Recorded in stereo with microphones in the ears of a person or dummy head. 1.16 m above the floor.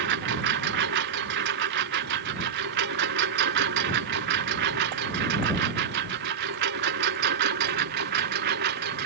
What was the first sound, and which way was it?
A lawn mower, 65° right (ahead or behind).